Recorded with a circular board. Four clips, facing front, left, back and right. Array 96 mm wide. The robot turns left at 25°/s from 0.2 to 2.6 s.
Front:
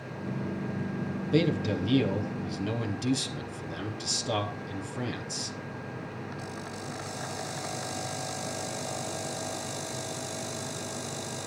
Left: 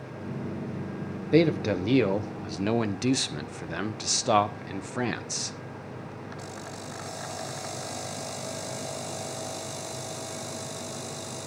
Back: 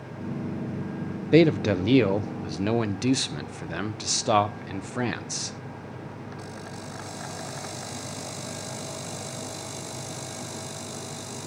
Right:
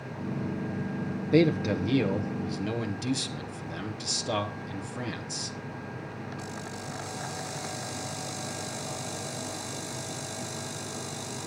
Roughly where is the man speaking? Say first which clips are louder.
Left 1 dB, back 8 dB; behind.